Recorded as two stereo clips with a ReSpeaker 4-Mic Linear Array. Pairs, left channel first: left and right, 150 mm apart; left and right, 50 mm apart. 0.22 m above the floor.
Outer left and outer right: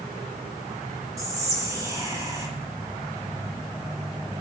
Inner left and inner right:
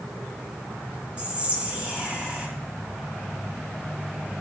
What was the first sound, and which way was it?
Whispering, 20° right (ahead or behind).